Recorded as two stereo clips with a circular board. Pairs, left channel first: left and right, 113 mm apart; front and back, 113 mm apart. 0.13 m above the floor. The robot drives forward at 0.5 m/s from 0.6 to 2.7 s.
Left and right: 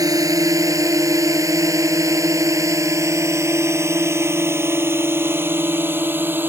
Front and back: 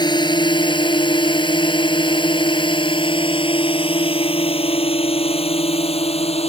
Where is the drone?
40° right; by 6.5 s 20° right.